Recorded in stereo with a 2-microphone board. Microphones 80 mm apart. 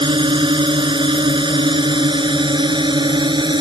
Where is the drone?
75° right (ahead or behind); by 3.6 s 70° right (ahead or behind).